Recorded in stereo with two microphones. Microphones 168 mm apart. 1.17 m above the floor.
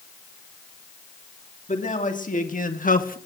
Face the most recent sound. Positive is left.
turn(degrees=55)  # may be behind; listen again after turning